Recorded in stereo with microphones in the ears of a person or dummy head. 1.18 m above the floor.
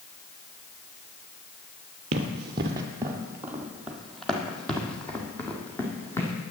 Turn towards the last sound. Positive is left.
turn(degrees=10)  # may be behind; listen again after turning